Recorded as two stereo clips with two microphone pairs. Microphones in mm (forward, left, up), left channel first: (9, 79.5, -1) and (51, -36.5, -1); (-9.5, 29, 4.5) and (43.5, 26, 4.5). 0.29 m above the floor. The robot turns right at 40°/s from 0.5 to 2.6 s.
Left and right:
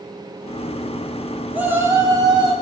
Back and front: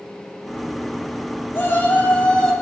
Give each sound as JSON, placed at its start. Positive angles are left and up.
{"t": 1.5, "sound": "a shout", "azimuth_deg": -145, "distance_m": 1.9}